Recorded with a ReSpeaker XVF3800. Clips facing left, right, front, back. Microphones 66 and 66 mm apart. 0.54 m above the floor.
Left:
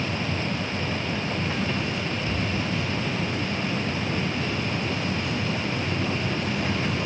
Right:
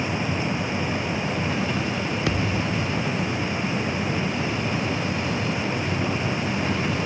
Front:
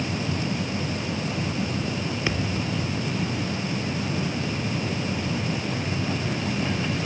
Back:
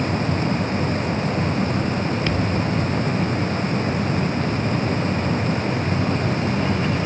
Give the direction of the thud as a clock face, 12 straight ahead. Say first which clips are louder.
Right 3 dB, back 5 dB; 3 o'clock.